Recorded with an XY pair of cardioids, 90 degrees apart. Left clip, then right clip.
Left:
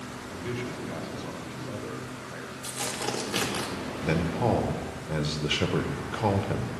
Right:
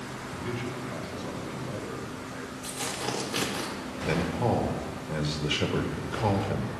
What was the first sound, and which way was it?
A man speaking, 30° left.